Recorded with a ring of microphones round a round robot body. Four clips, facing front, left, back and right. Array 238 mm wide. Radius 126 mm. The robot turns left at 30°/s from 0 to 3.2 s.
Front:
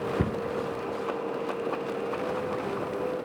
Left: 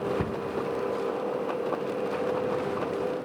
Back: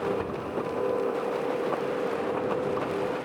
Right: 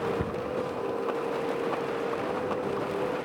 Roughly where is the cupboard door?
Ahead.